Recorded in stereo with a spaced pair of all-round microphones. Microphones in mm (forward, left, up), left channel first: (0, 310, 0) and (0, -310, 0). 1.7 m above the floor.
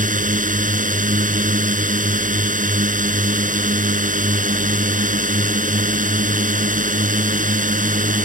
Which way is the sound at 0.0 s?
10° right (ahead or behind).